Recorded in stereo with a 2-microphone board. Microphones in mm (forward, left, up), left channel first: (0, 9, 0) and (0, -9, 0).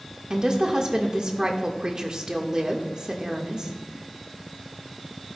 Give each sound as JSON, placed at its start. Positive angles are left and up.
{"t": 0.3, "sound": "a woman speaking", "side_deg": -40, "distance_m": 1.3}